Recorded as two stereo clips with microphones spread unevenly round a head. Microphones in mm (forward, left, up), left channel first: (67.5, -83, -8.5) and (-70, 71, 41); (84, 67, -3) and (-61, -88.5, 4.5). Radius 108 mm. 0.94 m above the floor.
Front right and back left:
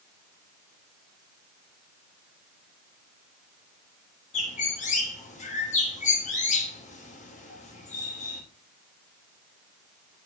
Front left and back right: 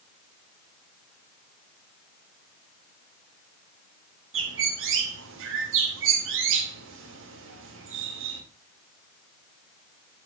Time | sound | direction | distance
4.3 | a bird | 105° right | 3 m